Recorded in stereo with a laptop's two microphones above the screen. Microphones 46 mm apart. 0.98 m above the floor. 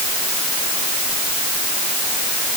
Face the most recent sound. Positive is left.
No sound to turn to.